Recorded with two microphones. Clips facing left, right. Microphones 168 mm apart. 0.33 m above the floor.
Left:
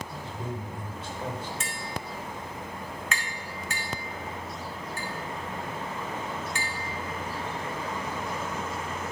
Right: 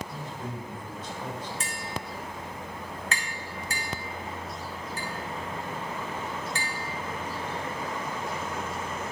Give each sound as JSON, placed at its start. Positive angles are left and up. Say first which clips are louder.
{"t": 0.1, "sound": "a man speaking", "louder": "left 1 dB", "side_deg": 30, "distance_m": 1.3}
{"t": 1.6, "sound": "tapping", "louder": "even", "side_deg": -35, "distance_m": 1.4}